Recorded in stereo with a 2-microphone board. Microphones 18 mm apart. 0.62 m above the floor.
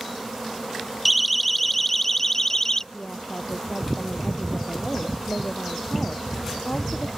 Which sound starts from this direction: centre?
A siren, at 1.1 s.